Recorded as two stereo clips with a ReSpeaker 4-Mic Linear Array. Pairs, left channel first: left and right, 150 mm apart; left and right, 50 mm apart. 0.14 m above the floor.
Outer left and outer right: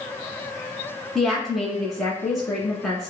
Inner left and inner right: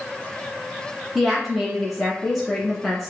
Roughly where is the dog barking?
I don't hear a dog barking.